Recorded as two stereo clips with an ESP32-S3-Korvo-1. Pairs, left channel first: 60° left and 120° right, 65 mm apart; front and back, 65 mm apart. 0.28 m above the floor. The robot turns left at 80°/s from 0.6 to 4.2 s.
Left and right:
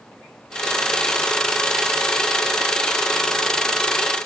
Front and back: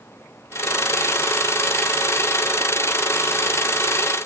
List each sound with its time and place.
Only background noise.